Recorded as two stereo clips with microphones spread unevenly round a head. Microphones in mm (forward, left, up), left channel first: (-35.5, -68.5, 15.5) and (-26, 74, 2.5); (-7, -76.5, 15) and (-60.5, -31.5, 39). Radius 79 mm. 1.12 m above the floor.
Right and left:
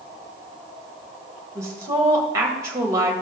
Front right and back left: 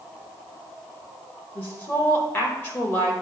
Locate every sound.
1.6 s a woman speaking: 15° left, 1.7 m